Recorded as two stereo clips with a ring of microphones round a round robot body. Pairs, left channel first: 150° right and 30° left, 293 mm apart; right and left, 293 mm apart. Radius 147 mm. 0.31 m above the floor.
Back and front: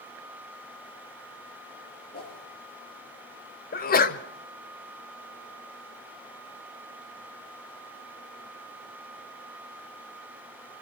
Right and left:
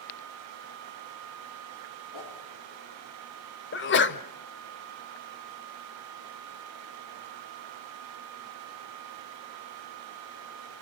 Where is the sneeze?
110° right, 1.3 m.